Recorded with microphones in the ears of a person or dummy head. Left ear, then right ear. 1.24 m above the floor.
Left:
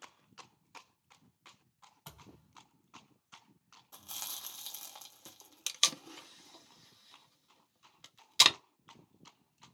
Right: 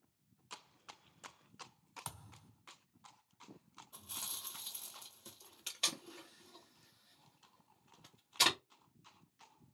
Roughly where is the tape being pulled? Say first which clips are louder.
Left 7 dB; left.